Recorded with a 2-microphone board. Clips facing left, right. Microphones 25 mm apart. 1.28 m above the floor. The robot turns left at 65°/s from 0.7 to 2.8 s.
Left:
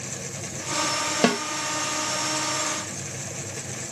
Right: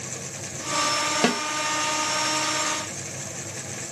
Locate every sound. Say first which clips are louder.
1.2 s a snare drum: left 3 dB; centre (ahead or behind), 1.0 m; by 1.4 s 10° left (ahead or behind), 1.0 m